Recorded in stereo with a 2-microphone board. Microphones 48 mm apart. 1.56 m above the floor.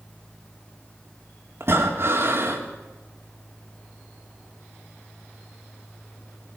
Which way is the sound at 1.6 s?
60° right (ahead or behind).